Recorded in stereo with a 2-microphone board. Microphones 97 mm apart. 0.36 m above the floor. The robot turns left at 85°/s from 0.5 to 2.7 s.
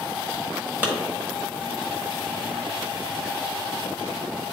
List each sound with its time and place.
0.8 s a clap: 20° right (ahead or behind), 1.5 m; by 0.9 s 25° right (ahead or behind), 1.5 m